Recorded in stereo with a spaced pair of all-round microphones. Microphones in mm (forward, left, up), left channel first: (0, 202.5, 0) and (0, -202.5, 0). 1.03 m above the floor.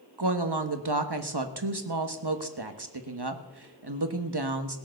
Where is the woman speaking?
70° right (ahead or behind), 1.4 m.